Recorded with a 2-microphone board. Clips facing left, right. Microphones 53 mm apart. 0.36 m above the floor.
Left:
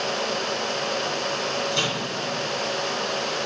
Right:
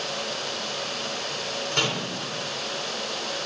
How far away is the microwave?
About 3.5 m.